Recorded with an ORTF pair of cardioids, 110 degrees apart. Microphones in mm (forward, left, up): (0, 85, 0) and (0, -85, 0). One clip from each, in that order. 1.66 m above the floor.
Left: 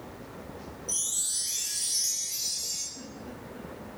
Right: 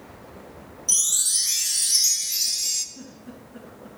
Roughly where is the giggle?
Ahead right.